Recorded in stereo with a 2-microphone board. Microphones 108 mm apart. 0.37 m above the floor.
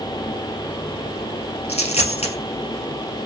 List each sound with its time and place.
1.7 s a dropped coin: 85° left, 1.7 m